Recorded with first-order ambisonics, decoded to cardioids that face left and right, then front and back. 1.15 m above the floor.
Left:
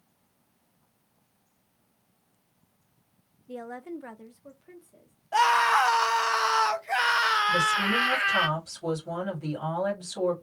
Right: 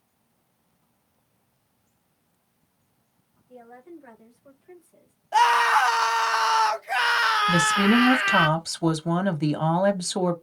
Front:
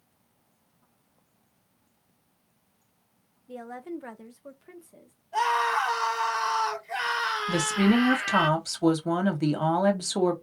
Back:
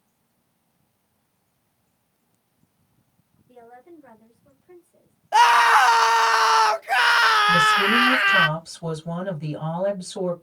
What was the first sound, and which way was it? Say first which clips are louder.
A woman speaking: left 7 dB, front 8 dB; 65° left.